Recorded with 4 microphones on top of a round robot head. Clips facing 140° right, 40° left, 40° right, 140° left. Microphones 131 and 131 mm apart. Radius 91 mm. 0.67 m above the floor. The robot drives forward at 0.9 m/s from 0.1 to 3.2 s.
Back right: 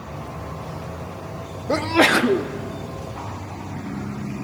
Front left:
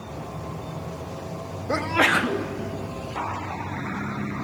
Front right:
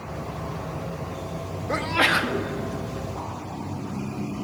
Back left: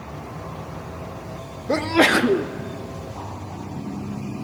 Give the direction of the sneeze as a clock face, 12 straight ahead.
7 o'clock.